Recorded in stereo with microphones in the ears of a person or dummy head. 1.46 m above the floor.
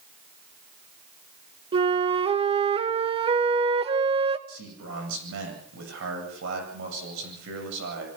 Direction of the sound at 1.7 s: 25° right (ahead or behind).